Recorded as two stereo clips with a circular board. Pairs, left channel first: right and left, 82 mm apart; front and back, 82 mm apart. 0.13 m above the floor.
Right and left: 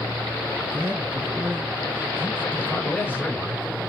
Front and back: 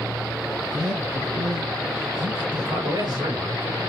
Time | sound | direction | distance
0.7 | a man speaking | 155° left | 2.5 m
2.6 | a man speaking | 160° right | 3 m